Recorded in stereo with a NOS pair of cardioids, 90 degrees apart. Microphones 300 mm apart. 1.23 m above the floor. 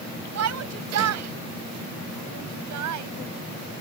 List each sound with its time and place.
0.3 s a shout: 60° right; by 3.1 s 75° right